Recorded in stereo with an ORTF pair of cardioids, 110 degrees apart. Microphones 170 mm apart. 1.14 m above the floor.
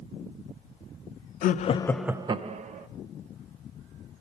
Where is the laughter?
60° left, 0.7 m; by 2.9 s 50° right, 1.1 m.